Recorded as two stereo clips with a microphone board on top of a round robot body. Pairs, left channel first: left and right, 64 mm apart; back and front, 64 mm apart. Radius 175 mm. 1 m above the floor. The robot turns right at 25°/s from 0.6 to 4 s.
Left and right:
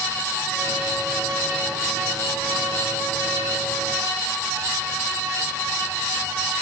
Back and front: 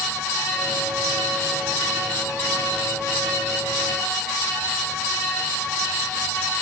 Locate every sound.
Only background noise.